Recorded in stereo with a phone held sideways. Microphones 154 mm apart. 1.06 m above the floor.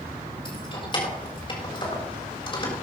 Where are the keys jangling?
35° left (ahead or behind), 3.5 m.